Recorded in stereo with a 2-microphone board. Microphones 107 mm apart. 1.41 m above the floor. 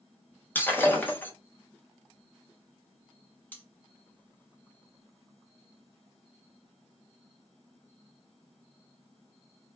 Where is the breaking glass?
15° left (ahead or behind), 0.6 m.